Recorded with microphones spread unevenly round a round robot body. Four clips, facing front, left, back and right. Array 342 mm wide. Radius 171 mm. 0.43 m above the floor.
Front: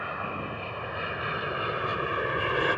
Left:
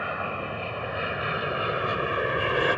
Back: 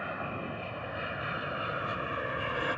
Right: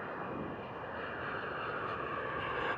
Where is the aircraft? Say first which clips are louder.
Left 9 dB, front 3 dB; 90° left; by 2.8 s 75° left.